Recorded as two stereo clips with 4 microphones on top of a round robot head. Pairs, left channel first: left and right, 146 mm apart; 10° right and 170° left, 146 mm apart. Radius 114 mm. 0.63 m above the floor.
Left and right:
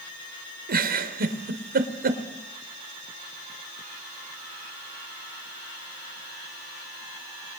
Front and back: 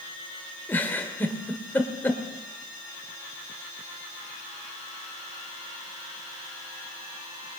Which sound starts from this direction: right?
A giggle, at 0.7 s.